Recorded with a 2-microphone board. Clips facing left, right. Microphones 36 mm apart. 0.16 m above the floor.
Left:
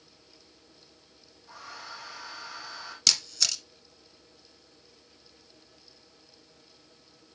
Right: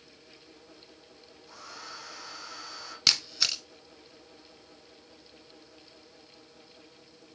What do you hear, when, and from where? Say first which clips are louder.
1.5 s a hair dryer: left 2 dB; 15° left (ahead or behind), 3 m
3.1 s a camera shutter: right 1 dB; 20° right (ahead or behind), 1.0 m